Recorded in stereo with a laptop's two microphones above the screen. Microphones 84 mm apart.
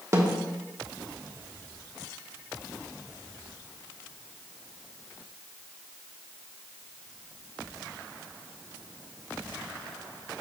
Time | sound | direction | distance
0.1 | a snare drum | 40° right (ahead or behind) | 0.9 m